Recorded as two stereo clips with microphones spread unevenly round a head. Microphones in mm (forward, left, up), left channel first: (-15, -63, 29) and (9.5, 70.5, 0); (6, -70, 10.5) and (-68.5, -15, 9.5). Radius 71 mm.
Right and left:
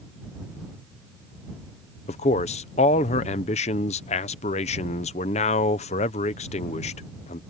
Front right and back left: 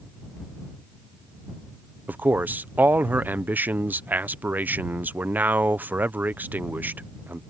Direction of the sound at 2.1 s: 145° right.